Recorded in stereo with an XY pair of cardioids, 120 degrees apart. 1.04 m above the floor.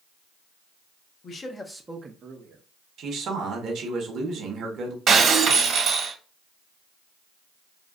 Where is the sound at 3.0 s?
60° right, 1.2 m.